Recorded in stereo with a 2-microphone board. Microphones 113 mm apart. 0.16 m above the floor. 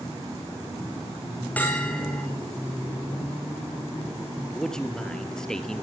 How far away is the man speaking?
About 2.5 m.